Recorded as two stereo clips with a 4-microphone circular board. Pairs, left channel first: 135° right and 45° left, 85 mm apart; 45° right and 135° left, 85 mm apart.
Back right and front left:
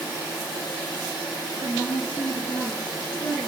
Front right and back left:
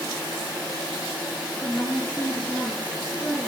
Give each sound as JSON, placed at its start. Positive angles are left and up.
{"t": 1.6, "sound": "a woman speaking", "azimuth_deg": -100, "distance_m": 3.5}